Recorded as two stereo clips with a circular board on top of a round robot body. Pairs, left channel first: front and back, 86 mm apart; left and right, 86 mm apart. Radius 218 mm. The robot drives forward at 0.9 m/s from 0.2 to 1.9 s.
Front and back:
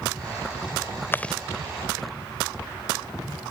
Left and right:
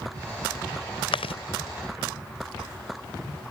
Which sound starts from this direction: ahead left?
Chewing, at 1.1 s.